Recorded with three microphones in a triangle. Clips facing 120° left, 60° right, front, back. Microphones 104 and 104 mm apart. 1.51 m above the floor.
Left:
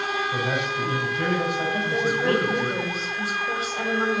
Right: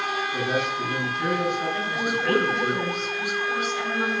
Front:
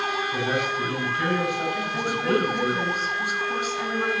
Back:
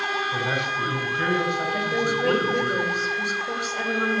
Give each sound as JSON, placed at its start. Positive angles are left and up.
{"t": 0.3, "sound": "a man speaking", "azimuth_deg": 115, "distance_m": 5.5}
{"t": 1.7, "sound": "a woman speaking", "azimuth_deg": 175, "distance_m": 5.0}